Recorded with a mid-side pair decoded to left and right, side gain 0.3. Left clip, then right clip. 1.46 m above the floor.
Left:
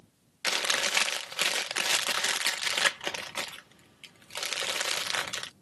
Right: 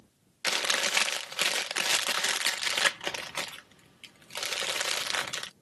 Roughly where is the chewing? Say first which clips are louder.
Even; ahead.